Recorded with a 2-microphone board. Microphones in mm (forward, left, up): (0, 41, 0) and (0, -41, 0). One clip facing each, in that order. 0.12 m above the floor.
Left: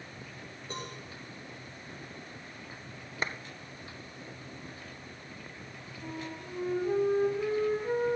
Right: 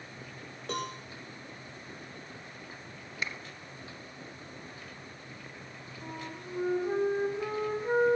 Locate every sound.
0.7 s a cowbell: 70° right (ahead or behind), 6 m
3.2 s a clap: 35° left (ahead or behind), 1.5 m
6.0 s a flute: 20° right (ahead or behind), 5.5 m